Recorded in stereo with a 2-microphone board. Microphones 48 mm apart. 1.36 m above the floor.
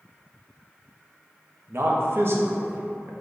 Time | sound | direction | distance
1.7 | a man speaking | 55° right (ahead or behind) | 0.6 m